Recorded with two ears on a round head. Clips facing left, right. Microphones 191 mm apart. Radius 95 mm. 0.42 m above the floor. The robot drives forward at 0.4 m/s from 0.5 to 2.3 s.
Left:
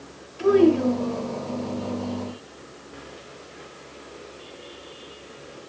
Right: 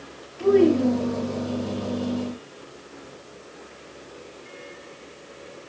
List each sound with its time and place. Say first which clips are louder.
0.4 s a child speaking: even; 5° left (ahead or behind), 3 m; by 1.4 s 10° left (ahead or behind), 3 m